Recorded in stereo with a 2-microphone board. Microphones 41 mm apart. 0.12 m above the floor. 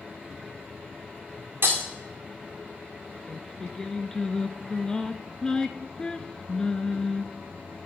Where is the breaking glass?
55° right (ahead or behind), 2 m.